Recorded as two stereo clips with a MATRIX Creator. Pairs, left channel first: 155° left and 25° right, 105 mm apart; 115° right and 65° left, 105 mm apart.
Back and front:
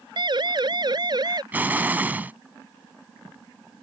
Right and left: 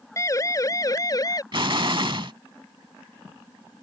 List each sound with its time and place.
0.2 s a siren: 55° right; by 1.4 s 65° right
1.5 s an explosion: 50° left